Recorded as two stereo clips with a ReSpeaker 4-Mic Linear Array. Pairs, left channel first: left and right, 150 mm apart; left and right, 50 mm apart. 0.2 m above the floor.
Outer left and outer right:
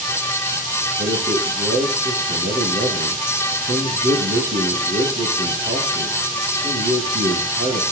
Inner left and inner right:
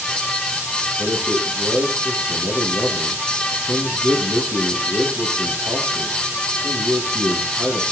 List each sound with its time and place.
1.0 s a man speaking: 80° right, 7.5 m